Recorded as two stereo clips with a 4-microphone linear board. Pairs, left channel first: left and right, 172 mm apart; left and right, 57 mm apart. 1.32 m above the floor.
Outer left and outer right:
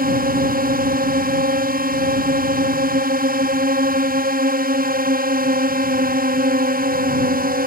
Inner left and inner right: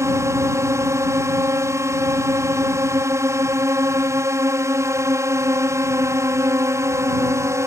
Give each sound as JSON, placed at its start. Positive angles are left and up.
{"t": 0.0, "sound": "a drone", "side_deg": -60}